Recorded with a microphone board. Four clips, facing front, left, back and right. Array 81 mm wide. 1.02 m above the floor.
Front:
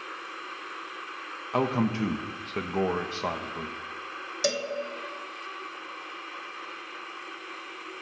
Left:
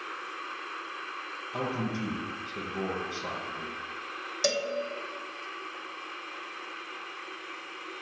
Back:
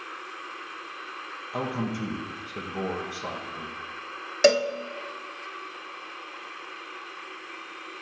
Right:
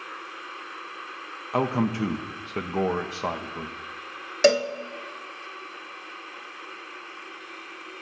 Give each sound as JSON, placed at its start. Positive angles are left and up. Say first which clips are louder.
{"t": 1.5, "sound": "a man speaking", "louder": "right 8 dB, front 4 dB", "azimuth_deg": -65, "distance_m": 0.8}
{"t": 4.4, "sound": "a cowbell", "louder": "right 10 dB, back 10 dB", "azimuth_deg": -135, "distance_m": 0.6}